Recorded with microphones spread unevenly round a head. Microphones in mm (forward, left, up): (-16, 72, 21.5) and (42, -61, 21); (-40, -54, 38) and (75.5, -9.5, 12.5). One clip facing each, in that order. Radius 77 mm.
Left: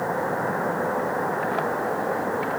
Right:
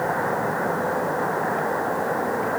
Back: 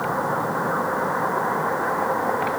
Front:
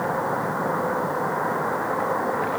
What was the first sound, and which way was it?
Only background noise.